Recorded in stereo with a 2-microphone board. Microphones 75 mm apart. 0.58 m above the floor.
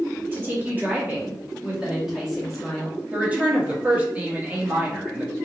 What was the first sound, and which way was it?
A woman speaking, 25° right (ahead or behind).